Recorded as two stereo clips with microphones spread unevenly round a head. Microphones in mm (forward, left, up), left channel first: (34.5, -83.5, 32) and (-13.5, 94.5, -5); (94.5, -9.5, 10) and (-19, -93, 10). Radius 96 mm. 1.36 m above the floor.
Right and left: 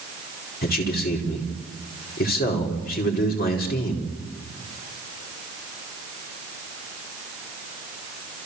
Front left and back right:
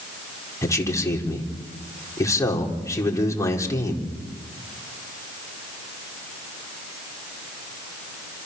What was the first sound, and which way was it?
A man speaking, 30° right.